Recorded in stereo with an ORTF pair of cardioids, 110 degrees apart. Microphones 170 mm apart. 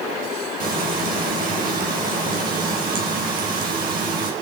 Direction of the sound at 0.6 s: 55° right.